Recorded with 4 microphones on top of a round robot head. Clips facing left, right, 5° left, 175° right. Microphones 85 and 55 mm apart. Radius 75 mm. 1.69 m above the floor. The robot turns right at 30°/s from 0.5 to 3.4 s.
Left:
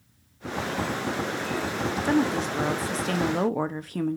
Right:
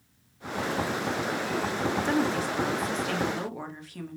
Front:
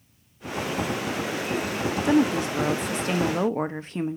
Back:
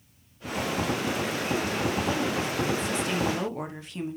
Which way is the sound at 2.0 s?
10° left.